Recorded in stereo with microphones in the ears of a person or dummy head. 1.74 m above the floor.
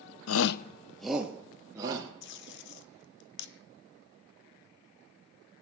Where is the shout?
80° left, 0.6 m; by 2.1 s 20° right (ahead or behind), 2.5 m.